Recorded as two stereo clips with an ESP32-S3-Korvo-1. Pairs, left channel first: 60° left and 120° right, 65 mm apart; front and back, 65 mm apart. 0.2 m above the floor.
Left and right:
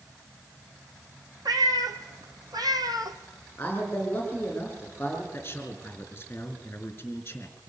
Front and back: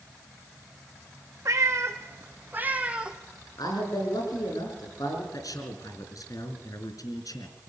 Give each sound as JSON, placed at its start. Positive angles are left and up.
{"t": 1.4, "sound": "a cat meowing", "azimuth_deg": -145, "distance_m": 2.0}
{"t": 3.6, "sound": "a man speaking", "azimuth_deg": 0, "distance_m": 8.5}
{"t": 5.3, "sound": "a man speaking", "azimuth_deg": 5, "distance_m": 3.5}